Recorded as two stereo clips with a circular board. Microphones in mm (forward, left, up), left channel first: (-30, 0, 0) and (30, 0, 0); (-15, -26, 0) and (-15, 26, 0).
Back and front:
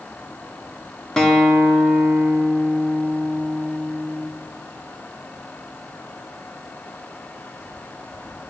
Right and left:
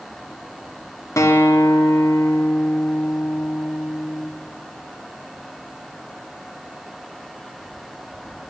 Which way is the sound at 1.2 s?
100° right.